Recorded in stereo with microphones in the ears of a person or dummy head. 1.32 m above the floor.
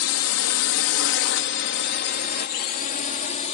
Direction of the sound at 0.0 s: 70° left (ahead or behind).